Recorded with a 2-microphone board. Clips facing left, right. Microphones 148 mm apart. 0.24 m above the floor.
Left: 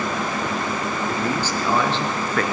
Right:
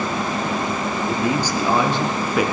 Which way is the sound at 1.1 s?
15° right (ahead or behind).